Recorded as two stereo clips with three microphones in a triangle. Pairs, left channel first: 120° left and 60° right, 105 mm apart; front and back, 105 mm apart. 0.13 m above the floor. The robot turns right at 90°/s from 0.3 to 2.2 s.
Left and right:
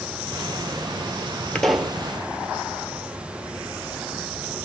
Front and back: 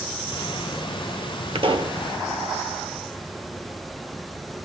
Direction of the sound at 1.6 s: 165° right.